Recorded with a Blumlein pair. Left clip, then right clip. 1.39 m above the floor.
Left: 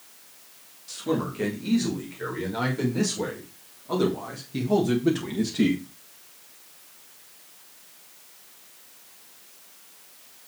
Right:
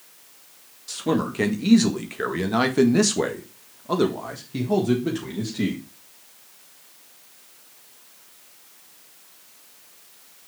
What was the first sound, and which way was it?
A man speaking, 70° right.